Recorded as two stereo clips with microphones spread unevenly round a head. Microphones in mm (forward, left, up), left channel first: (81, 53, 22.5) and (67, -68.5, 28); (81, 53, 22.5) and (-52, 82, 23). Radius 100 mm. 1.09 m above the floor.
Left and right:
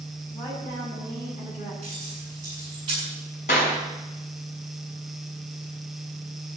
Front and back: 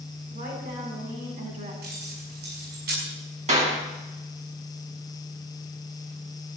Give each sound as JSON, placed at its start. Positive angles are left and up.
{"t": 0.3, "sound": "a woman speaking", "azimuth_deg": 155, "distance_m": 9.0}
{"t": 1.8, "sound": "keys jangling", "azimuth_deg": -165, "distance_m": 6.5}
{"t": 3.5, "sound": "a clap", "azimuth_deg": 135, "distance_m": 6.5}